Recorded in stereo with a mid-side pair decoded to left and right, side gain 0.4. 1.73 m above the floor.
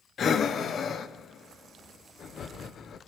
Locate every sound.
0.2 s breathing: 60° left, 1.0 m